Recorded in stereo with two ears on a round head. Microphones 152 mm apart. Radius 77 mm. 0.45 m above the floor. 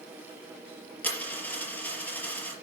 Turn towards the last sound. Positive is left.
turn(degrees=10)  # may be behind; listen again after turning